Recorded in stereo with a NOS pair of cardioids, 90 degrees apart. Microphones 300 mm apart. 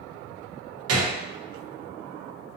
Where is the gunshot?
55° right, 0.8 m.